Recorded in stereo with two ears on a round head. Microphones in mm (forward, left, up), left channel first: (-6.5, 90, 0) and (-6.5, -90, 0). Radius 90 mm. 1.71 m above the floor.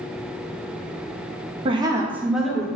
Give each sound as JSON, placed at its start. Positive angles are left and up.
{"t": 1.6, "sound": "a woman speaking", "side_deg": -30, "distance_m": 0.5}